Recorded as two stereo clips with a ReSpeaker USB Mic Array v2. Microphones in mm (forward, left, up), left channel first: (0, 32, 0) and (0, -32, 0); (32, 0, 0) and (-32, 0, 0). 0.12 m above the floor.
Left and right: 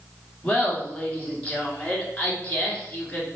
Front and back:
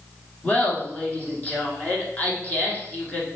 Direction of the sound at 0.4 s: 40° left.